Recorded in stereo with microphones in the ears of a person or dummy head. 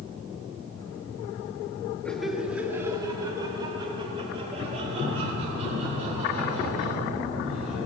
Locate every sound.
2.0 s laughter: centre (ahead or behind), 1.8 m; by 7.8 s 50° right (ahead or behind), 8.5 m